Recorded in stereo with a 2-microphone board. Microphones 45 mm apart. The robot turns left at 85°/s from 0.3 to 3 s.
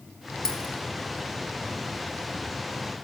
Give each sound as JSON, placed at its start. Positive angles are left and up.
{"t": 0.5, "sound": "a dropped coin", "side_deg": 10, "distance_m": 1.0}